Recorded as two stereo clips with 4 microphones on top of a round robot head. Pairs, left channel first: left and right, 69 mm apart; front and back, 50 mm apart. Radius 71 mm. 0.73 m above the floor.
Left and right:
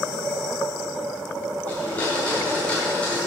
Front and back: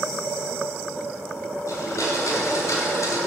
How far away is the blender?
About 1.5 m.